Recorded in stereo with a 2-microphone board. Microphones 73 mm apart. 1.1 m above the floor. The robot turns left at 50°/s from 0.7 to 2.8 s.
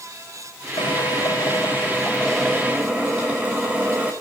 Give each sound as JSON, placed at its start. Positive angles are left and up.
{"t": 0.8, "sound": "a drill", "azimuth_deg": 85, "distance_m": 5.0}